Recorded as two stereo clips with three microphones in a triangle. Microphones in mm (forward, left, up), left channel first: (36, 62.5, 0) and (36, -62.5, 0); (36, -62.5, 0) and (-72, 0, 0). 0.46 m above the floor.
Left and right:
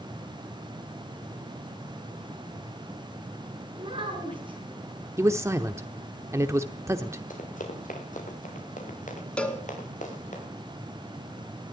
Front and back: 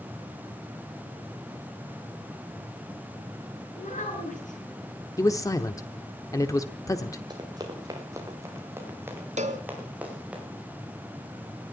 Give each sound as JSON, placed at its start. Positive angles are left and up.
{"t": 3.8, "sound": "a child speaking", "azimuth_deg": -40, "distance_m": 5.5}
{"t": 5.2, "sound": "a man speaking", "azimuth_deg": -50, "distance_m": 0.9}
{"t": 7.3, "sound": "running footsteps", "azimuth_deg": 95, "distance_m": 4.0}
{"t": 9.4, "sound": "a cowbell", "azimuth_deg": 170, "distance_m": 1.5}